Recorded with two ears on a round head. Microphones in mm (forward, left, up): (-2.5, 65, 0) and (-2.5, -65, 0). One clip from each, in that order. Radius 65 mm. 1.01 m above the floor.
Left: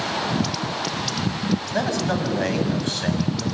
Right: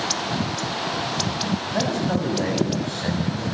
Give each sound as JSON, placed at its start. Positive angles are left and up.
{"t": 1.7, "sound": "a man speaking", "side_deg": 65, "distance_m": 7.5}